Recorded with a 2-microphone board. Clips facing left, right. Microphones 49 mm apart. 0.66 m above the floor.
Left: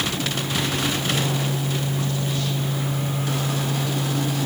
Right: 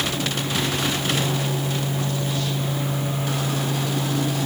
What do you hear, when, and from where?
Only background noise.